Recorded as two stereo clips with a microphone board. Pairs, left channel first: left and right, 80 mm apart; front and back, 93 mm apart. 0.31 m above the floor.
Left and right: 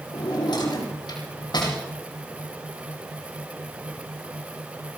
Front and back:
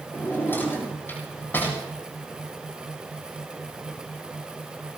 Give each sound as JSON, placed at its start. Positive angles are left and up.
{"t": 0.1, "sound": "a drawer", "azimuth_deg": 70, "distance_m": 7.5}